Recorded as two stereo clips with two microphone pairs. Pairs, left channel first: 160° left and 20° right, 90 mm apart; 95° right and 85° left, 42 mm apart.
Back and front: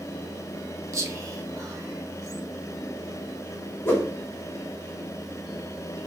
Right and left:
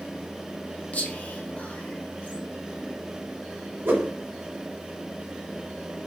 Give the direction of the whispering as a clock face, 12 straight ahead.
2 o'clock.